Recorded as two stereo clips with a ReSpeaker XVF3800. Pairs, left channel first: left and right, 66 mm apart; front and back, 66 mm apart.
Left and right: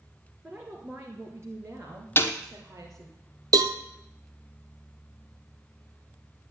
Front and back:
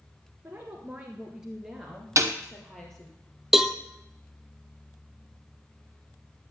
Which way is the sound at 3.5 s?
95° right.